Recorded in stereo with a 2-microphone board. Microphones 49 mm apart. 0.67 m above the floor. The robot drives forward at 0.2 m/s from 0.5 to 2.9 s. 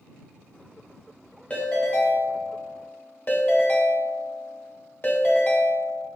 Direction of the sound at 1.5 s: 30° left (ahead or behind).